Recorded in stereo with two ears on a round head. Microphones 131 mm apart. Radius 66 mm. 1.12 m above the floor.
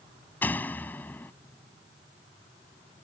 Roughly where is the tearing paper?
I don't hear tearing paper.